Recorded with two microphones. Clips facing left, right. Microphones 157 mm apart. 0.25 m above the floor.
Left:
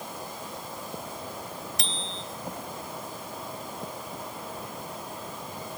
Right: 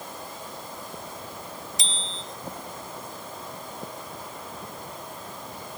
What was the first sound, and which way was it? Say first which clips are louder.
A bicycle bell: left 1 dB; 65° left (ahead or behind).